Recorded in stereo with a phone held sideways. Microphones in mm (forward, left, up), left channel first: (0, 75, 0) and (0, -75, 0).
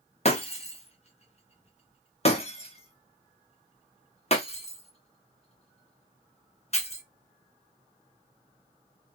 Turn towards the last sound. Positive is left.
turn(degrees=45)  # may be behind; listen again after turning